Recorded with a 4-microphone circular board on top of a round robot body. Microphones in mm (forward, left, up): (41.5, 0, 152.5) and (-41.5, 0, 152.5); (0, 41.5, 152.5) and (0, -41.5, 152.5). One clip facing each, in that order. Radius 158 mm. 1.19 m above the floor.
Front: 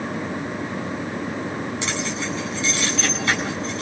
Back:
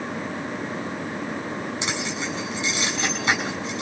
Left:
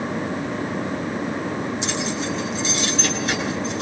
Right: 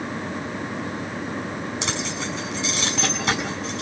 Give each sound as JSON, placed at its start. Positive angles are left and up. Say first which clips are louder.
{"t": 1.8, "sound": "keys jangling", "louder": "front 2 dB, left 3 dB", "azimuth_deg": -105, "distance_m": 8.0}